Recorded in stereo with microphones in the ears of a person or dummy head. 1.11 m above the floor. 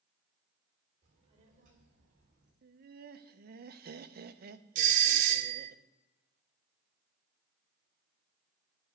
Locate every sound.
1.0 s a child speaking: 30° right (ahead or behind), 3 m; by 2.5 s 45° right (ahead or behind), 3.5 m
2.6 s laughter: 45° right (ahead or behind), 0.8 m
4.8 s a doorbell: 45° right (ahead or behind), 1.0 m